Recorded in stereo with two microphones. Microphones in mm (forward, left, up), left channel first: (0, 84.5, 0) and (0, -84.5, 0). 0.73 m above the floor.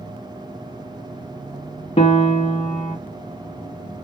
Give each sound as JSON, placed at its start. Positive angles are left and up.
{"t": 2.0, "sound": "a piano", "side_deg": 35, "distance_m": 0.7}